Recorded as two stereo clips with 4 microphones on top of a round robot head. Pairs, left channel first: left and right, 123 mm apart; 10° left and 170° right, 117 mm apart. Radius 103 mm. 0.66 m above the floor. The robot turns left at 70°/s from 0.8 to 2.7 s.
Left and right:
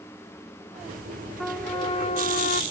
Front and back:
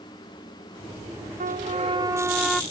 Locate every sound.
1.4 s a trumpet: straight behind; by 2.6 s 95° left